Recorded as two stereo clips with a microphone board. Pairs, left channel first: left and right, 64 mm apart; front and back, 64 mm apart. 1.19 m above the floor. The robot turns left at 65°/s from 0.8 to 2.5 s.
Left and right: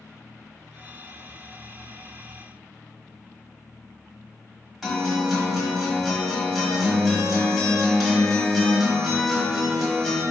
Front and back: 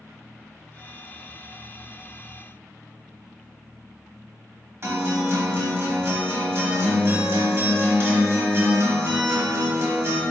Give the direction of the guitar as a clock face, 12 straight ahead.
6 o'clock.